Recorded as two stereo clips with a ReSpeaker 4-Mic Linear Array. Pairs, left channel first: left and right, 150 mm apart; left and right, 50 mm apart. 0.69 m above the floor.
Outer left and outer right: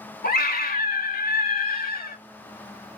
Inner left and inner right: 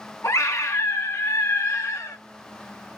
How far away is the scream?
About 1.2 m.